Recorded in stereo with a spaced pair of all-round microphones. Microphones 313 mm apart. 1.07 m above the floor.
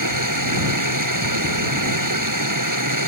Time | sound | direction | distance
0.0 | running water | 85° right | ?